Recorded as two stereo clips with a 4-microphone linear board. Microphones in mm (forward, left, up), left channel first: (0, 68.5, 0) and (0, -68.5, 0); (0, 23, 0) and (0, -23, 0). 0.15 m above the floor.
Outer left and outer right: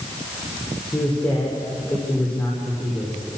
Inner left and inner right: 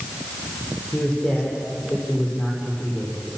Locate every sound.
0.9 s a man speaking: 15° left (ahead or behind), 6.5 m; by 3.2 s 20° left (ahead or behind), 7.5 m